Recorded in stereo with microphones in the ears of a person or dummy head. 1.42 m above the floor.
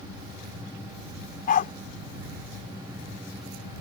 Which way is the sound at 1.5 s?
50° left (ahead or behind).